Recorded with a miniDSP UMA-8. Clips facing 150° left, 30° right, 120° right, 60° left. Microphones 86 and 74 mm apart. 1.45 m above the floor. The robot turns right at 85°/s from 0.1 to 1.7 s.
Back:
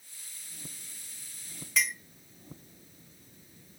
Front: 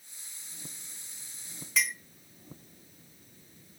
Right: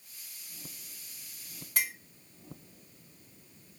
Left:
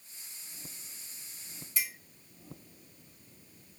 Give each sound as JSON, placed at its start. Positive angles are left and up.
{"t": 1.8, "sound": "a clink", "azimuth_deg": -120, "distance_m": 1.1}